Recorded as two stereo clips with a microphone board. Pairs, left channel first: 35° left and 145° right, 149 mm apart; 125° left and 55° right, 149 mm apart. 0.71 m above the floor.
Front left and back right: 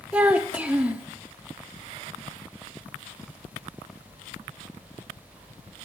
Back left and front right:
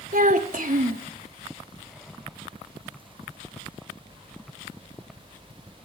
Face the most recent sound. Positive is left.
turn(degrees=-65)